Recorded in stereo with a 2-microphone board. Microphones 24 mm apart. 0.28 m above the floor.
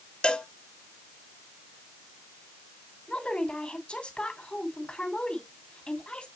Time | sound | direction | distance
0.2 | a cowbell | 50° left (ahead or behind) | 0.9 m
3.1 | a woman speaking | 55° left (ahead or behind) | 2.5 m